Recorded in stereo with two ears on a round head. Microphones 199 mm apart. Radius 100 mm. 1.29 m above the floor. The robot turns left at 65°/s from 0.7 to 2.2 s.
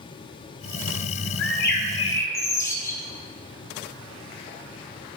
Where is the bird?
65° left, 1.8 m; by 3.0 s 15° left, 1.8 m.